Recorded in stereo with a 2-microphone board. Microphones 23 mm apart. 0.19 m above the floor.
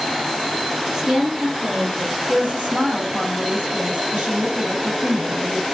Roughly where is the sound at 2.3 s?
Right.